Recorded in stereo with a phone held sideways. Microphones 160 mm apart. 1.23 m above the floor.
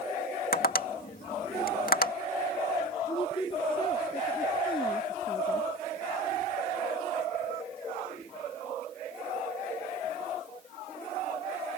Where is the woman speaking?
30° left (ahead or behind).